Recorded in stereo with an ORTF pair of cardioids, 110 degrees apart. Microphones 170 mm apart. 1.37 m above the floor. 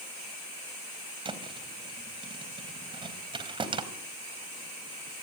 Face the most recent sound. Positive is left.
turn(degrees=-30)